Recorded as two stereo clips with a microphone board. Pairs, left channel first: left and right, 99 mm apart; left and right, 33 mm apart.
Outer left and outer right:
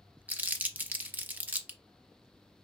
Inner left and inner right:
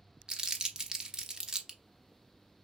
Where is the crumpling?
15° right (ahead or behind), 0.6 m.